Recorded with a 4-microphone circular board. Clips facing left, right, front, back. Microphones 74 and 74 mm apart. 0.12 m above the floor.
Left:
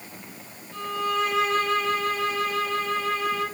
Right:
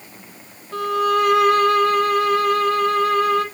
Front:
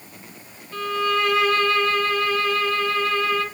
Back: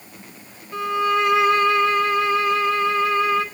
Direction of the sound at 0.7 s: 110° right.